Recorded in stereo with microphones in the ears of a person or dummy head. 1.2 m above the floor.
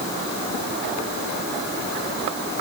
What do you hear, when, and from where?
Only background noise.